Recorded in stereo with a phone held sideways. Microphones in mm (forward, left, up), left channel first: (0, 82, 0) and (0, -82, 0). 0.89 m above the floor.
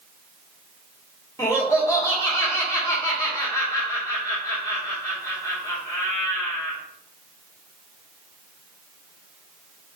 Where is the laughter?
20° left (ahead or behind), 2.5 m.